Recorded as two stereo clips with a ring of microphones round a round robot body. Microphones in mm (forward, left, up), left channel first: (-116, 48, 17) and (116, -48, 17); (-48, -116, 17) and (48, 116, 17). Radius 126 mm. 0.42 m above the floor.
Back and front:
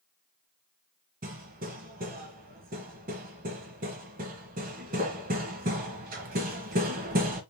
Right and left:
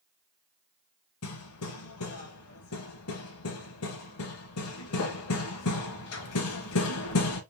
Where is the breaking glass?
No breaking glass in this recording.